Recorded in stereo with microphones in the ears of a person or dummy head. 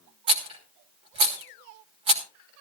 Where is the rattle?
35° right (ahead or behind), 1.5 m.